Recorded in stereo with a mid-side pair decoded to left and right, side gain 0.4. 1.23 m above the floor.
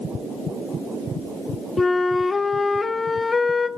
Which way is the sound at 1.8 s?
30° left.